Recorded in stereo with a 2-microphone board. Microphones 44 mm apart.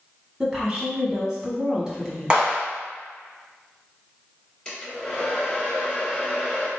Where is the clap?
20° right (ahead or behind), 1.2 m.